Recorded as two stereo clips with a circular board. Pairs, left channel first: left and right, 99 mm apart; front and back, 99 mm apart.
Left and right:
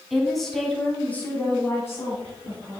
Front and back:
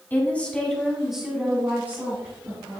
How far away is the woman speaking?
About 1.3 m.